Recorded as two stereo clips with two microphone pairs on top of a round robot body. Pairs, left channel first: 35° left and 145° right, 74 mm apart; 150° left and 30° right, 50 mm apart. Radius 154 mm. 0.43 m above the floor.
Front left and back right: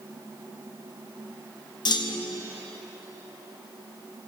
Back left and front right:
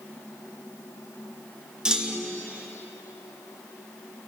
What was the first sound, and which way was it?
A clunk, 50° left.